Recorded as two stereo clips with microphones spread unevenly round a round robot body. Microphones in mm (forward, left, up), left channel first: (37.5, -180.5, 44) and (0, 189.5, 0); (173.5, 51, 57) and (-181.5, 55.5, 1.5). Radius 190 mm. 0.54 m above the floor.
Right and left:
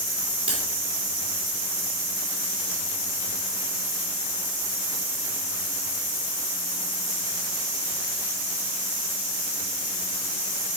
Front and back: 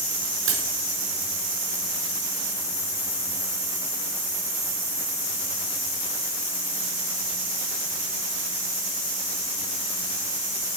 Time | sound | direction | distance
0.5 | cutlery clinking | 175° left | 4 m